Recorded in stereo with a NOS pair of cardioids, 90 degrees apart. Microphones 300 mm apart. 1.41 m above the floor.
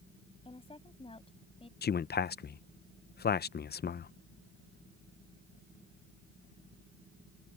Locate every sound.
0.5 s a woman speaking: 20° left
1.8 s a man speaking: 35° left